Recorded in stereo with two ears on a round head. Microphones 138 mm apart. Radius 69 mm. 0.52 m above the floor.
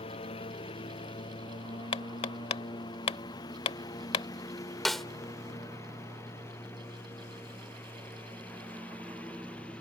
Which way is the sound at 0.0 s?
40° left (ahead or behind).